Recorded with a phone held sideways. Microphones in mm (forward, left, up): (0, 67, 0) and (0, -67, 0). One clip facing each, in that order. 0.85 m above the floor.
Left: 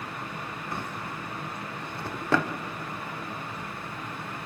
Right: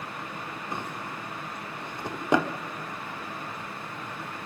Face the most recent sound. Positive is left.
turn(degrees=-20)  # may be behind; listen again after turning